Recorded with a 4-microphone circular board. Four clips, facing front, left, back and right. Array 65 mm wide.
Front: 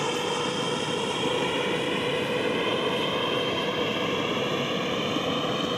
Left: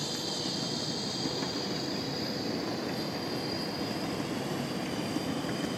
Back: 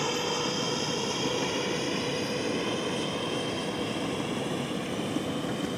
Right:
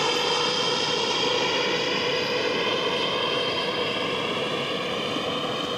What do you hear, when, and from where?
0.0 s an aircraft: 75° right; by 5.8 s 45° right